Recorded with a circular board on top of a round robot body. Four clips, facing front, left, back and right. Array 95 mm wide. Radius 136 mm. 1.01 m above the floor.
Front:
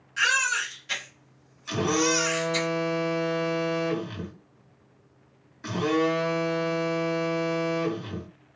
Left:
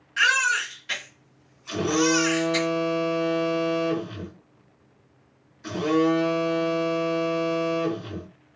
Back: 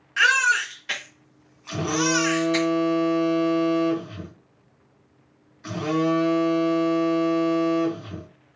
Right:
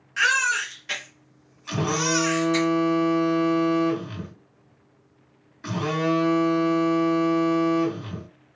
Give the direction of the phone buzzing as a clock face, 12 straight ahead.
2 o'clock.